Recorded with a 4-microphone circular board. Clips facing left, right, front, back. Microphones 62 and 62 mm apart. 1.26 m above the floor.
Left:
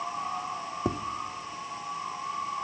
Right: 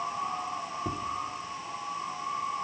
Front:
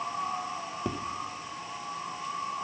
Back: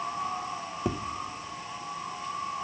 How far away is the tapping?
About 0.8 m.